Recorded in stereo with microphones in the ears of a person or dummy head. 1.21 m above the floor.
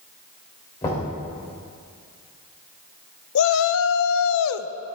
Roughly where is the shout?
Left.